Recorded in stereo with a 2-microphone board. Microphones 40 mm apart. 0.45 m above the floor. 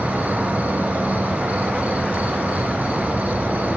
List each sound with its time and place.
0.0 s an insect: 40° right (ahead or behind), 3.5 m